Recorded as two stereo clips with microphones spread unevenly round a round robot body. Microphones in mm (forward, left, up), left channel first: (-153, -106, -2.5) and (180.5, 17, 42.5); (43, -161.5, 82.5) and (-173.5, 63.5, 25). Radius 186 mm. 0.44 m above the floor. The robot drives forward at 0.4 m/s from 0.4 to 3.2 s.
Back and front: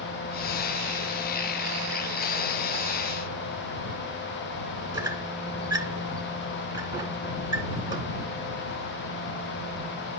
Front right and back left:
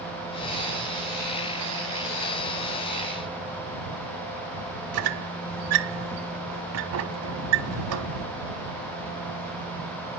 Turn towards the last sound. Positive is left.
turn(degrees=105)